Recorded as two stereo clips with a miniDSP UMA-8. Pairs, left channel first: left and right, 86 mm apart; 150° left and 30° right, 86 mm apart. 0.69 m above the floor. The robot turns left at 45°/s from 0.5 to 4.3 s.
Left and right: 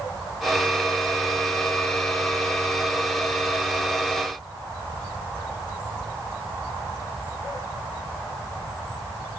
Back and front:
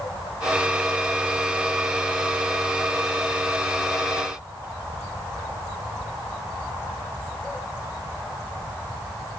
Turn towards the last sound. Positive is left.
No sound to turn to.